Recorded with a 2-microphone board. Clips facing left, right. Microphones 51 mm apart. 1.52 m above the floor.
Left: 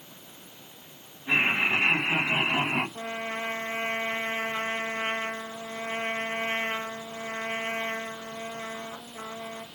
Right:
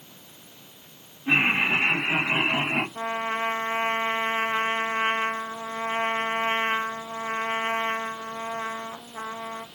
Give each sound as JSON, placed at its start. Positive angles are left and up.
{"t": 1.3, "sound": "laughter", "side_deg": -60, "distance_m": 2.5}
{"t": 3.0, "sound": "a trumpet", "side_deg": -40, "distance_m": 0.7}